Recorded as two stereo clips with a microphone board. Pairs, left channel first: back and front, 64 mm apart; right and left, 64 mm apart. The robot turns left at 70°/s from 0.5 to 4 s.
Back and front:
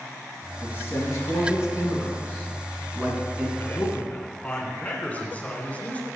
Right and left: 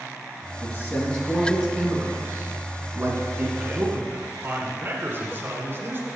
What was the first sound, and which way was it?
A man speaking, 125° right.